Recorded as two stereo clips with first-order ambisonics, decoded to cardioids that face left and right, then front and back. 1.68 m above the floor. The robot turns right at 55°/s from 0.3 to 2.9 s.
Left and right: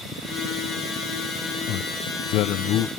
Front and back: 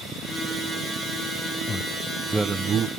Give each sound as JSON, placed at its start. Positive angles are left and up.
{"t": 1.7, "sound": "a man speaking", "azimuth_deg": 60}